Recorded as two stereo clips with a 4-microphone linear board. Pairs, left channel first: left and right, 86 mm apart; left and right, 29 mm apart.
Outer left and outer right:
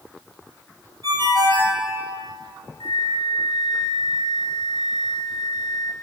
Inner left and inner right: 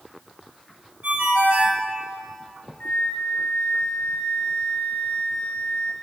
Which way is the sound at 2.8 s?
90° left.